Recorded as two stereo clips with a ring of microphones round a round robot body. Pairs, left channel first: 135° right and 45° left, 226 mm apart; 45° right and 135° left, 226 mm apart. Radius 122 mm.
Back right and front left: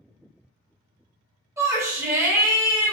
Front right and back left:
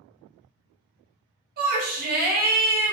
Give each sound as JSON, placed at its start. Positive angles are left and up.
{"t": 1.6, "sound": "a shout", "azimuth_deg": 115, "distance_m": 0.9}